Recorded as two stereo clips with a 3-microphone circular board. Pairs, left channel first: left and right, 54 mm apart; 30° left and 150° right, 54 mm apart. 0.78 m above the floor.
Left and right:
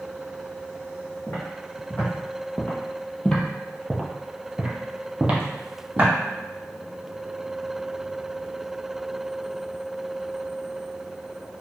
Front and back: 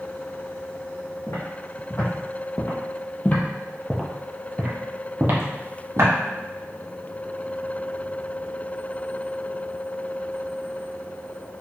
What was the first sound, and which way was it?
Footsteps, 35° left.